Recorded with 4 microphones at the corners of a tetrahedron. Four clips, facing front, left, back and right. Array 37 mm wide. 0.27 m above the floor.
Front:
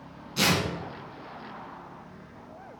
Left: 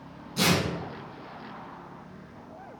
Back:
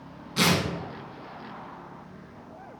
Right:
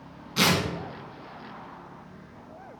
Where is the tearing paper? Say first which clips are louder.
Right 2 dB, back 1 dB; 115° right, 2.5 m.